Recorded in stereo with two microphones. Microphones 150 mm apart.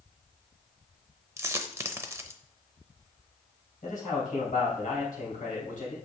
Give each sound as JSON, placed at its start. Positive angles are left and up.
{"t": 1.4, "sound": "a dropped coin", "side_deg": -20, "distance_m": 0.6}
{"t": 3.8, "sound": "a man speaking", "side_deg": 65, "distance_m": 3.5}